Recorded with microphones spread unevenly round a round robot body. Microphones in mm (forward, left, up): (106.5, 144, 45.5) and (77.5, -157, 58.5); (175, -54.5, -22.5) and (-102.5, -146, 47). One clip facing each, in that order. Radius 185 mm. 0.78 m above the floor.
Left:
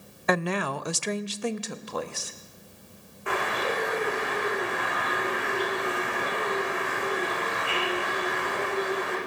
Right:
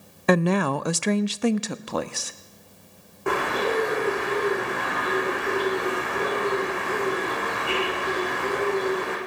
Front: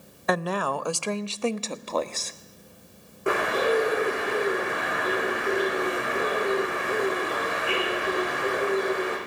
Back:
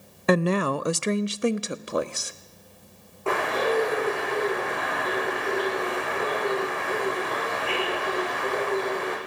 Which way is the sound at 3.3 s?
55° right.